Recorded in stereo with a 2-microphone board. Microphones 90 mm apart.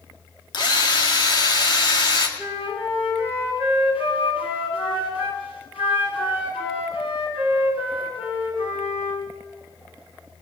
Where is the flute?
80° left, 7.5 m.